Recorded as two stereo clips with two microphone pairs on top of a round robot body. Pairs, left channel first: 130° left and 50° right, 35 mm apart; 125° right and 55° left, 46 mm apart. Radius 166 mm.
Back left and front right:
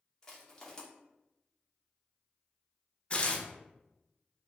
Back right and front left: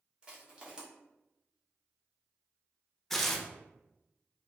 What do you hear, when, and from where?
0.2 s crushing: 100° left, 1.1 m
3.1 s tearing paper: 155° left, 0.7 m